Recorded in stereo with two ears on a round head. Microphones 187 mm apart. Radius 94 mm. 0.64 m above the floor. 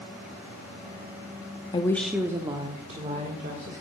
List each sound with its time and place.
1.7 s a woman speaking: 25° left (ahead or behind), 0.7 m; by 3.8 s 40° right (ahead or behind), 2.5 m